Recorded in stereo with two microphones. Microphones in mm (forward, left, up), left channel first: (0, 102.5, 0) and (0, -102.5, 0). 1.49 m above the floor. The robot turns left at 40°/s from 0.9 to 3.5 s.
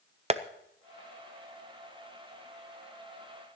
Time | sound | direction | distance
0.3 | tapping | 35° right (ahead or behind) | 0.5 m